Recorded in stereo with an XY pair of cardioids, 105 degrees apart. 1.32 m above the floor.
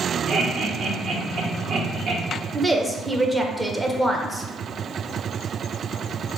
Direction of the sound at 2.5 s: 15° right.